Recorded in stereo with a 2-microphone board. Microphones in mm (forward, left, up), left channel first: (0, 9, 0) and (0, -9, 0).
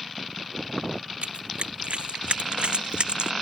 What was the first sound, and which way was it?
Running footsteps, 70° right (ahead or behind).